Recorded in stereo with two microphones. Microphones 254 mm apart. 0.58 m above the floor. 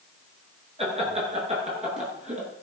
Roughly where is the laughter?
Right.